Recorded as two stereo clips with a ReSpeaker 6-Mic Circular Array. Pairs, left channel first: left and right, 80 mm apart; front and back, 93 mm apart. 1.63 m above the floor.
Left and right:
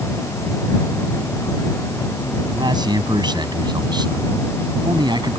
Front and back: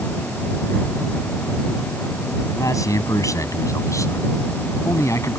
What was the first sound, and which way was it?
A man speaking, 55° right.